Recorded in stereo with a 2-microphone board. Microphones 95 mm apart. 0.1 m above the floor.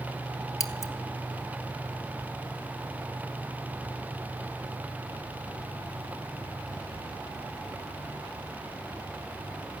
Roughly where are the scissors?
Left.